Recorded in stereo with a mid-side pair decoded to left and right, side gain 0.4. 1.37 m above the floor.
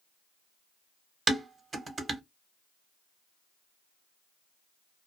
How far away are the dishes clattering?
About 1.1 m.